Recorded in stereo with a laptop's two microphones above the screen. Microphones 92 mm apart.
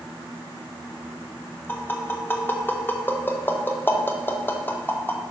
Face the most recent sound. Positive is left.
turn(degrees=20)  # may be behind; listen again after turning